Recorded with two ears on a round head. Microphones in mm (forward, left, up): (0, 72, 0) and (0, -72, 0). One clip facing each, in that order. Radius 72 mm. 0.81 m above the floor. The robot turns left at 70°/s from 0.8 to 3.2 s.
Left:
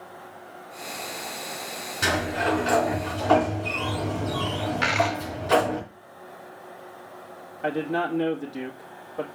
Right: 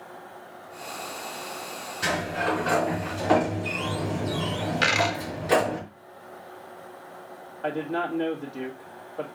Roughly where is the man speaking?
Centre.